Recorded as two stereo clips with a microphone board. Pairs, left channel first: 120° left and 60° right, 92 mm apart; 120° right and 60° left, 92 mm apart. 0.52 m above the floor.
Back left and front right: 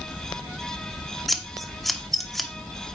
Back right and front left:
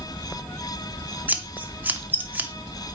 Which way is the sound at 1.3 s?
35° left.